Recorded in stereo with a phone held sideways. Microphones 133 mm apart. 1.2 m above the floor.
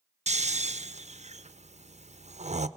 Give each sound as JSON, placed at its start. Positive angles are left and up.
{"t": 0.3, "sound": "snoring", "side_deg": -60, "distance_m": 0.5}